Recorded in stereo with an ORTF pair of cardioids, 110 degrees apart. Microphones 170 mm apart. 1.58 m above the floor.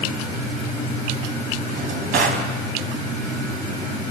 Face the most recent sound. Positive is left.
turn(degrees=-60)